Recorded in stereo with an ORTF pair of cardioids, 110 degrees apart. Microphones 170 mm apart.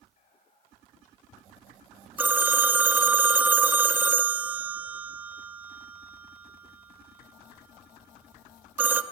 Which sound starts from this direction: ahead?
A phone ringing, at 2.2 s.